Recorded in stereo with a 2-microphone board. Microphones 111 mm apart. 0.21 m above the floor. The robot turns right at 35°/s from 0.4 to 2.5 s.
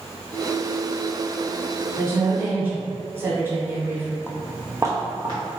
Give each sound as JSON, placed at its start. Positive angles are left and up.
{"t": 2.0, "sound": "a woman speaking", "side_deg": -25, "distance_m": 1.0}
{"t": 4.3, "sound": "footsteps", "side_deg": 20, "distance_m": 0.6}